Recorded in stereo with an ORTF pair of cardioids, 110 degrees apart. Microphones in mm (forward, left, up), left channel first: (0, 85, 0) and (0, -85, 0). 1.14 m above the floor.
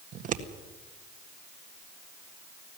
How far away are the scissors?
About 1.7 m.